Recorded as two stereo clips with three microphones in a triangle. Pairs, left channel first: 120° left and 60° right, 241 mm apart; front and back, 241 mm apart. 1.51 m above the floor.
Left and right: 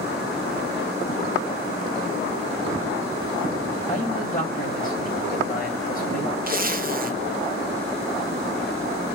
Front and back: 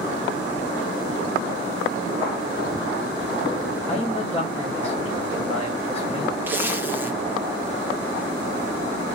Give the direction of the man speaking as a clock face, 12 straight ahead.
10 o'clock.